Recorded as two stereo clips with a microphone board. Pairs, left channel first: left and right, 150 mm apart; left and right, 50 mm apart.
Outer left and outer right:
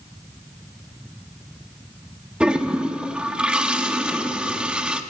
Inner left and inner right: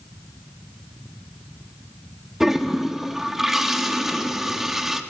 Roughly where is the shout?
No shout in this recording.